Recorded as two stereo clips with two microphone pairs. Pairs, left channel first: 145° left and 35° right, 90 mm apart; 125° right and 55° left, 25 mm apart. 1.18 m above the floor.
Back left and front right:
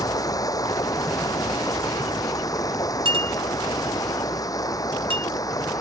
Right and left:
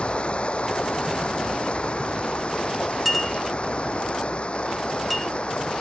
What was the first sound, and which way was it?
Running water, 170° right.